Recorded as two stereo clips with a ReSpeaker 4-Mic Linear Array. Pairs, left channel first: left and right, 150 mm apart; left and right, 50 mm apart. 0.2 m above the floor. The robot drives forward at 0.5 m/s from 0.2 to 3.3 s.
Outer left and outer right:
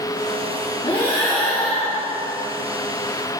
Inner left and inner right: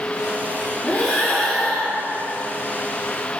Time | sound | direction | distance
0.8 | breathing | 35° left (ahead or behind) | 3.5 m